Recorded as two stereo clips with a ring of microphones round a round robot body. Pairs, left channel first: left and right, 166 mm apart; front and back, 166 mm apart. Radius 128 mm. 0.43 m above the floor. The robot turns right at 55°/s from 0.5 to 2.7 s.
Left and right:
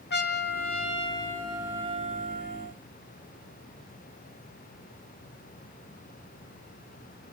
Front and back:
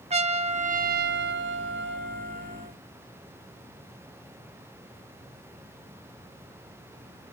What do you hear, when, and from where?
0.1 s a trumpet: 125° left, 0.6 m; by 2.7 s 115° right, 0.6 m